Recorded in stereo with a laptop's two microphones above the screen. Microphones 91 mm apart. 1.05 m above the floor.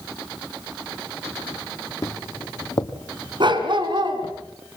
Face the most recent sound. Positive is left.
turn(degrees=-55)  # may be behind; listen again after turning